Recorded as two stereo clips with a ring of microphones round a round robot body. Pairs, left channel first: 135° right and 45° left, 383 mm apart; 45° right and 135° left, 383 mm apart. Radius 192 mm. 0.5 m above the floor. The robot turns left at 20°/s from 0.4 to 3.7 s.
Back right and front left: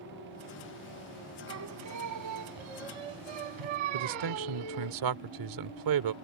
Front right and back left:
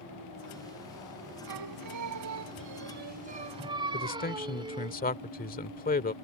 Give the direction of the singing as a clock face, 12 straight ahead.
9 o'clock.